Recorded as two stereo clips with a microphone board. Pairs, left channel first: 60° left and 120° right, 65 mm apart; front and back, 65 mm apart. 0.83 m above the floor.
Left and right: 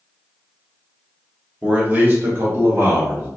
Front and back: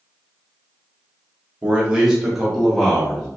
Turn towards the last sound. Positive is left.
turn(degrees=-80)